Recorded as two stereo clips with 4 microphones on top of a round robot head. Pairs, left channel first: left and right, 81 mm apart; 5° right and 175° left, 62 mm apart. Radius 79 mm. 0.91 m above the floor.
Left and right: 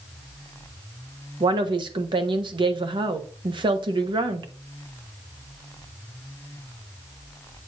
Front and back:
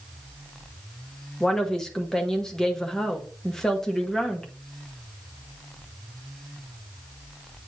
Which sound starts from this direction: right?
A woman speaking, at 1.4 s.